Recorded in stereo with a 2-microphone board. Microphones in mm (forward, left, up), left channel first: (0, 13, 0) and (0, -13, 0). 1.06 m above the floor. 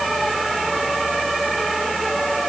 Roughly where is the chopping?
I don't hear chopping.